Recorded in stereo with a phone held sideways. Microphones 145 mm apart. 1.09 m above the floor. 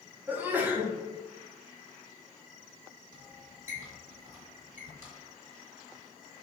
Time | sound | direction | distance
0.3 | a sneeze | 10° right (ahead or behind) | 0.6 m
3.1 | a squeak | 60° left (ahead or behind) | 1.8 m